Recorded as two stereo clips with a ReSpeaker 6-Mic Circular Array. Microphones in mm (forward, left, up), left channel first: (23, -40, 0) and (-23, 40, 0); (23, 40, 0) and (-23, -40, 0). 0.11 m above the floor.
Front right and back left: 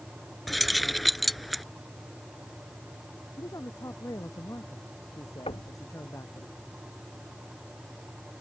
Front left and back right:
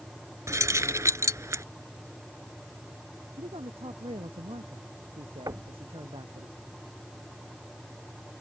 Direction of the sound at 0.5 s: 150° right.